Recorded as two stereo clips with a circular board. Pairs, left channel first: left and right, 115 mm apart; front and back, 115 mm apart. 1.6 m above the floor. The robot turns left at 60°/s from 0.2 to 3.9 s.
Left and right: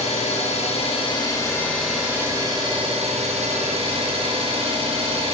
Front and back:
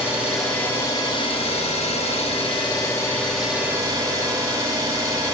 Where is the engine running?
100° left, 0.9 m; by 5.3 s 120° right, 0.9 m.